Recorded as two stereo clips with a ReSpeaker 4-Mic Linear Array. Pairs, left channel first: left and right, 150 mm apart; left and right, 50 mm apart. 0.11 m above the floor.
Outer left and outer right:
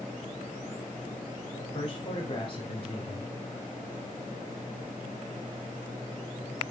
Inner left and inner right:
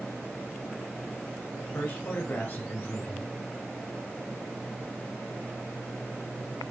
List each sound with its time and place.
1.6 s a man speaking: 40° left (ahead or behind), 2 m